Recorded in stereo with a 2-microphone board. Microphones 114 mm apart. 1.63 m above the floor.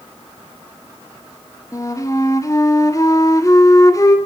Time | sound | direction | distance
1.7 | a flute | 30° left (ahead or behind) | 1.8 m